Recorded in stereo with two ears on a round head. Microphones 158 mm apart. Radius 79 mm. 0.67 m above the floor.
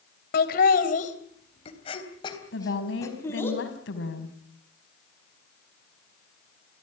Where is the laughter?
60° left (ahead or behind), 3 m; by 3.5 s 10° left (ahead or behind), 4.5 m.